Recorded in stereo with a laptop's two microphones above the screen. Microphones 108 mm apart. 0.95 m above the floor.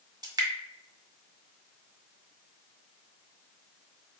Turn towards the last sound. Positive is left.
turn(degrees=-40)  # may be behind; listen again after turning